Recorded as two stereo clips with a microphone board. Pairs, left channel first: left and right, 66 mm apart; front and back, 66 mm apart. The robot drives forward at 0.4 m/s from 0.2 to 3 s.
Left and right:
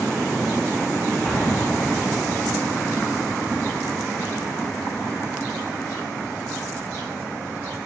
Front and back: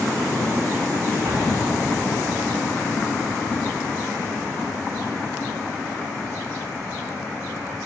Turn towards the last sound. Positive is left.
turn(degrees=170)